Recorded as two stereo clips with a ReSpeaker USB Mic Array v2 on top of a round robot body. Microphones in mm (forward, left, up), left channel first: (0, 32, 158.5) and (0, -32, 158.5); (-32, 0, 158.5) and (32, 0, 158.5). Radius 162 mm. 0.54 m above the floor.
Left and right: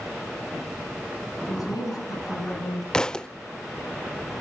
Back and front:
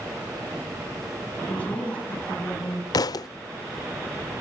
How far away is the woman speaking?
About 7 m.